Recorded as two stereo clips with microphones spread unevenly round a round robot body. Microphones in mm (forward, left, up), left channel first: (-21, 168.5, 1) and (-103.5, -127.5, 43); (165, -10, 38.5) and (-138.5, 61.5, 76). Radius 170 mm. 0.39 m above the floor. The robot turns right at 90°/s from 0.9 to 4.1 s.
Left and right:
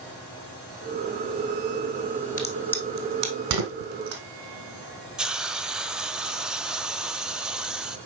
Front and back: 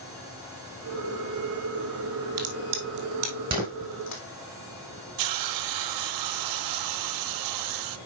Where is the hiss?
165° left, 0.6 m.